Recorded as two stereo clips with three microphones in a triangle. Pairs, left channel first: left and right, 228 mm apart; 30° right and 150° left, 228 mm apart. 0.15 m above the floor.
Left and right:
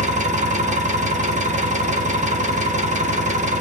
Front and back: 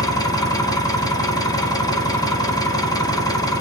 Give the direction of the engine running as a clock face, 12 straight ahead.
3 o'clock.